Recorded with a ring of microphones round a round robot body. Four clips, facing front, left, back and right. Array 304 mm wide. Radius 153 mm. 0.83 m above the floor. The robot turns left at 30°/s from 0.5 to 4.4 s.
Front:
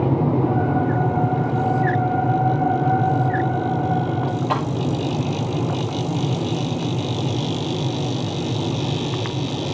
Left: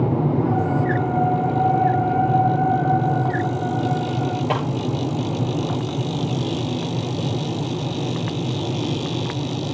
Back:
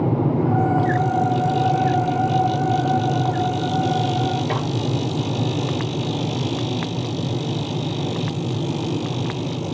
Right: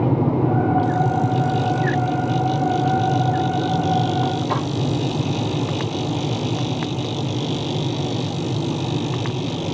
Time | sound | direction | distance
4.5 | a snare drum | 120° left | 8.5 m